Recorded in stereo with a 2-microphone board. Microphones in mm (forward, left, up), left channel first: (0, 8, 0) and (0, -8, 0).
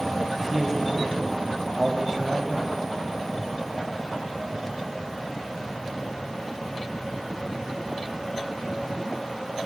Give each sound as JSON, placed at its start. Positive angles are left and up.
{"t": 0.4, "sound": "a man speaking", "side_deg": -15, "distance_m": 1.4}